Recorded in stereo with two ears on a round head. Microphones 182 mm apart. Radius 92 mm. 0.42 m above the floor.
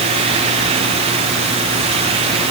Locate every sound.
Only background noise.